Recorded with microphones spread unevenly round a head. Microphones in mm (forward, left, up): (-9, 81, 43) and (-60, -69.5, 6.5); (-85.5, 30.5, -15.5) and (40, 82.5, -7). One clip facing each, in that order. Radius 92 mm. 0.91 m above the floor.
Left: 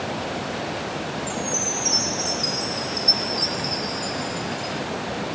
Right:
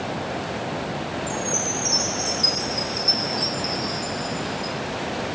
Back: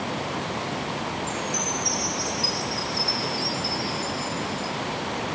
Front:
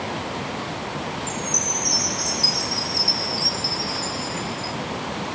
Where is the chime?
25° right, 2.5 m.